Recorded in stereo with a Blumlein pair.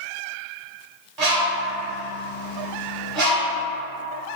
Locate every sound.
1.2 s a bird: 35° right, 1.0 m